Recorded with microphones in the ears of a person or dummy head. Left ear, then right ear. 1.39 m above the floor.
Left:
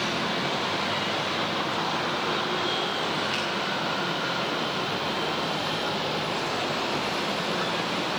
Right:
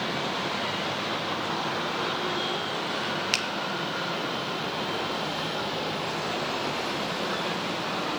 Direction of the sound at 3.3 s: 50° right (ahead or behind).